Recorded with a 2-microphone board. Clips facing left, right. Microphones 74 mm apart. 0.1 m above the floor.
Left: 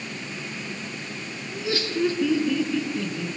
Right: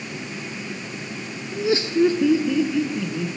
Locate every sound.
1.5 s laughter: 25° right (ahead or behind), 1.1 m; by 3.3 s 10° right (ahead or behind), 2.5 m